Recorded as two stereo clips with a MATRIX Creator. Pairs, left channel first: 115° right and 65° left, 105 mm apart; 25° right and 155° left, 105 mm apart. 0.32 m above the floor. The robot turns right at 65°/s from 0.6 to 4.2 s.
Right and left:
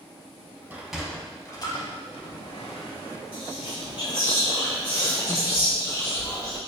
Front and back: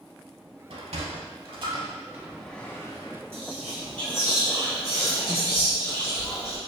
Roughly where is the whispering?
Behind right.